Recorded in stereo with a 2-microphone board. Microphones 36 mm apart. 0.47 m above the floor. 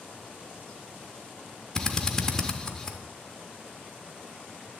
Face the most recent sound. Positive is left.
turn(degrees=15)  # may be behind; listen again after turning